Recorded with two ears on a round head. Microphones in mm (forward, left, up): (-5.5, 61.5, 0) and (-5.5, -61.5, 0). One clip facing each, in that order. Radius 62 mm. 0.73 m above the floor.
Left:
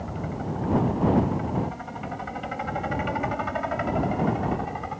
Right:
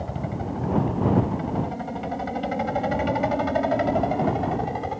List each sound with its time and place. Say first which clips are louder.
0.0 s a helicopter: right 2 dB; 40° right (ahead or behind)